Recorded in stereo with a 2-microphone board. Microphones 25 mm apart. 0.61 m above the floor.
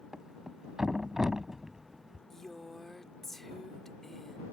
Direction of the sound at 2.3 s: 10° left (ahead or behind).